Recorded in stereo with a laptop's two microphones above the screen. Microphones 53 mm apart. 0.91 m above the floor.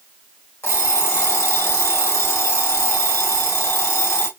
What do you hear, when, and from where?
0.6 s an alarm clock: 60° left (ahead or behind), 1.3 m